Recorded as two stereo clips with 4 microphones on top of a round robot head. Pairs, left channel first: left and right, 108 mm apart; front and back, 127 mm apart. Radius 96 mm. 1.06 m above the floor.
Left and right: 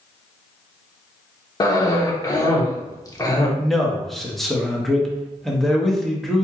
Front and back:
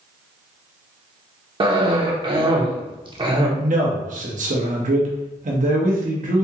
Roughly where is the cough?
Behind left.